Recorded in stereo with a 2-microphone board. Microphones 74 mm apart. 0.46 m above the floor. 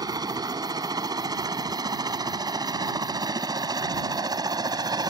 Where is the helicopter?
60° right (ahead or behind); by 5.1 s 65° right (ahead or behind).